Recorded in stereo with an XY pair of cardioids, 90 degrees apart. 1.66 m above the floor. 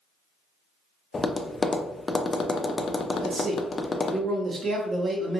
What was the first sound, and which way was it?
Tapping, 35° left.